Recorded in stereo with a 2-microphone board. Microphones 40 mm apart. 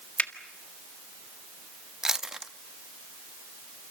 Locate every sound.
0.2 s a finger snap: 40° left (ahead or behind), 1.7 m
2.0 s chewing: 15° right (ahead or behind), 0.7 m